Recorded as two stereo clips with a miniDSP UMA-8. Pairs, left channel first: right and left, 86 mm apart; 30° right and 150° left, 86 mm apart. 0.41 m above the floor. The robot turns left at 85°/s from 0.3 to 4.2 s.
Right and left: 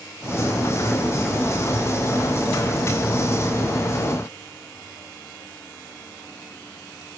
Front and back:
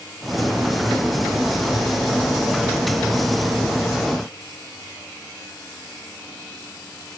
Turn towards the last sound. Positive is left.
No sound to turn to.